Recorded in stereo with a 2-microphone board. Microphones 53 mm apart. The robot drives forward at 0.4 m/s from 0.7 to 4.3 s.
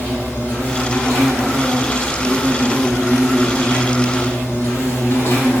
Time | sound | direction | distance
0.0 | an insect | 25° left (ahead or behind) | 3 m